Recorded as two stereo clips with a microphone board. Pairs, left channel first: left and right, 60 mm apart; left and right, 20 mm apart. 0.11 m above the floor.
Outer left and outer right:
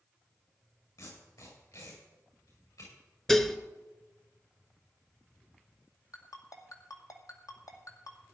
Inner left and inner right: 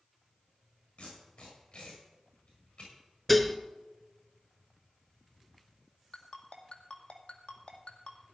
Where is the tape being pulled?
85° left, 8 m.